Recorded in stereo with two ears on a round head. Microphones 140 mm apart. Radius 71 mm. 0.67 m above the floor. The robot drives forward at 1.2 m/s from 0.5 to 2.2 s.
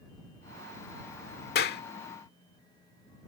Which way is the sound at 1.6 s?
60° left (ahead or behind).